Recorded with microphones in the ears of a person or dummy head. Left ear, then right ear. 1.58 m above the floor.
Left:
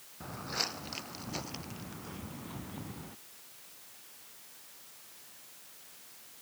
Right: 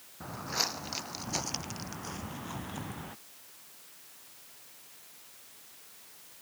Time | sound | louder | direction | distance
0.2 | footsteps | right 3 dB | centre (ahead or behind) | ?